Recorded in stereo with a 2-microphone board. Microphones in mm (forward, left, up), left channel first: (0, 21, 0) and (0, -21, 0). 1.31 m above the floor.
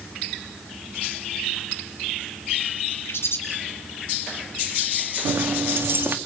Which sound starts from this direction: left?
A bird, at 3.1 s.